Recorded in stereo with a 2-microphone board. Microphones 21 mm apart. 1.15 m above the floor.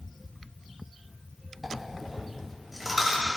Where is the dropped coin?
5° right (ahead or behind), 3 m.